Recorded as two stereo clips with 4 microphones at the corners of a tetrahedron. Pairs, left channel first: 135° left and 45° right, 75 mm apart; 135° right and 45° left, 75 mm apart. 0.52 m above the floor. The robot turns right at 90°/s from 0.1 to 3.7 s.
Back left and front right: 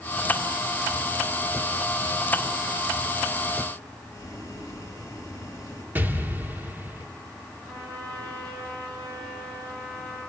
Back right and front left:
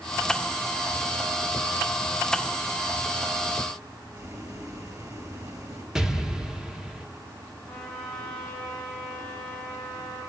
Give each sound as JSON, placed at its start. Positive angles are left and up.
{"t": 4.1, "sound": "boiling", "azimuth_deg": 85, "distance_m": 4.0}
{"t": 6.0, "sound": "an explosion", "azimuth_deg": -25, "distance_m": 1.3}
{"t": 7.7, "sound": "a trumpet", "azimuth_deg": -50, "distance_m": 7.0}